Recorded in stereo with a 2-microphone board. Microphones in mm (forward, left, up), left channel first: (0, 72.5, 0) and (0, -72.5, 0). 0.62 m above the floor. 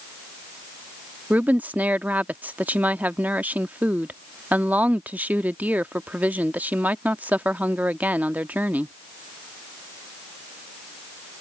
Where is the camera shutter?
I don't hear a camera shutter.